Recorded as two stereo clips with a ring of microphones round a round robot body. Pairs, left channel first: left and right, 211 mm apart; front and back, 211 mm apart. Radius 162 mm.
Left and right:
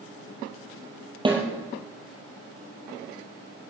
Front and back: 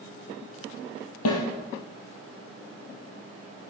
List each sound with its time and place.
1.2 s a snare drum: 25° right, 4.5 m